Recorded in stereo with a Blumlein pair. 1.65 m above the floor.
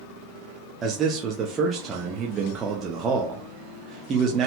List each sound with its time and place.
0.8 s a man speaking: 20° right, 0.5 m